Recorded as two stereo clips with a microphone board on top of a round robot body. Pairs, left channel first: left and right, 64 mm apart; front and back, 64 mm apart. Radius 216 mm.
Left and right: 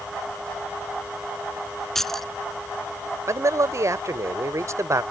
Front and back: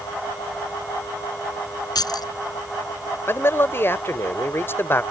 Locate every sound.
1.9 s keys jangling: 5° left
3.3 s a man speaking: 50° right